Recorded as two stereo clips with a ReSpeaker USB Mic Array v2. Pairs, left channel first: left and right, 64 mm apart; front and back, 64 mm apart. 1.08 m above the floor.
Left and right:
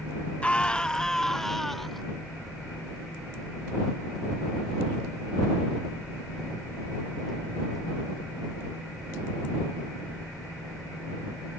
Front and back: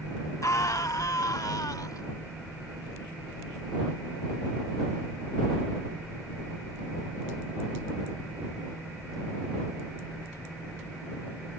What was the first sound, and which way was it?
A scream, 20° left.